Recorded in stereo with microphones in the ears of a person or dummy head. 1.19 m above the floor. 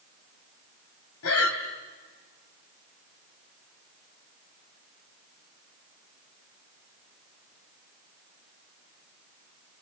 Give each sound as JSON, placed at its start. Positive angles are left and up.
{"t": 1.2, "sound": "breathing", "side_deg": 70, "distance_m": 2.5}